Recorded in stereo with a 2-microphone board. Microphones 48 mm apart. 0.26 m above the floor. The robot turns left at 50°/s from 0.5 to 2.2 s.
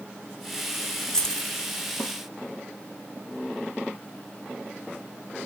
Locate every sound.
1.1 s keys jangling: 15° left (ahead or behind), 1.0 m; by 1.5 s 5° left (ahead or behind), 1.0 m